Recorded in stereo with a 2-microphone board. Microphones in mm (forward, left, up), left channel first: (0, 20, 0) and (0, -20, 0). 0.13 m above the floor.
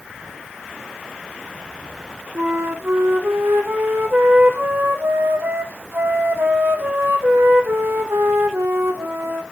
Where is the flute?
75° right (ahead or behind), 1.8 m.